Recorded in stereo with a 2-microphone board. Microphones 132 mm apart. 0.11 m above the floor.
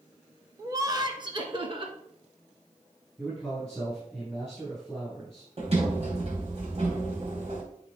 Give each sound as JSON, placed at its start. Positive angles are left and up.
{"t": 0.6, "sound": "laughter", "side_deg": -25, "distance_m": 1.1}
{"t": 3.2, "sound": "a man speaking", "side_deg": 5, "distance_m": 4.0}
{"t": 5.6, "sound": "a sliding door", "side_deg": -50, "distance_m": 2.5}